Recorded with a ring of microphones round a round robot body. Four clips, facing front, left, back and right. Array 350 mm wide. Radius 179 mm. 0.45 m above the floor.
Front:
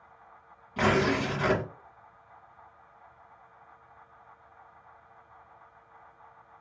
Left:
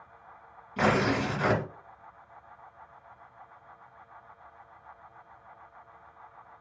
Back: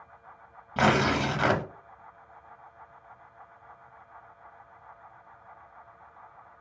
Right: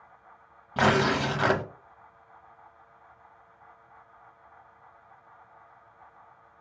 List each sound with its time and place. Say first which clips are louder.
0.8 s tearing paper: right 2 dB, back 2 dB; 130° right, 1.0 m